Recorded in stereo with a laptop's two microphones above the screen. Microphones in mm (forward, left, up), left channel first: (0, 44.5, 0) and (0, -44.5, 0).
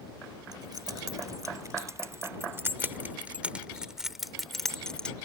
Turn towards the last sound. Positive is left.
turn(degrees=10)  # may be behind; listen again after turning